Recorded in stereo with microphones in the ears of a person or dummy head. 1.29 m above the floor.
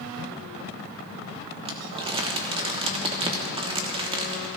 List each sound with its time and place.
1.6 s crumpling: 20° right (ahead or behind), 1.3 m